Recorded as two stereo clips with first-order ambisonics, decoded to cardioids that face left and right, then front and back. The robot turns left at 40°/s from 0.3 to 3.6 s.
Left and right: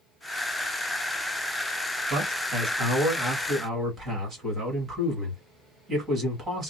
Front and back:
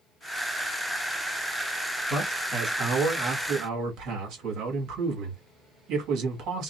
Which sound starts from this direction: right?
A man speaking, at 2.1 s.